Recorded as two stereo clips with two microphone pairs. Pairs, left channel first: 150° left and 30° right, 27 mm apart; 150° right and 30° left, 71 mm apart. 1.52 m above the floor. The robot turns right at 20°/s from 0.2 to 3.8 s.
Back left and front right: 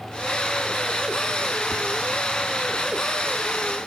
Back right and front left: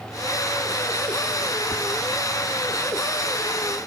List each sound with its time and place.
1.7 s whispering: 25° right, 0.6 m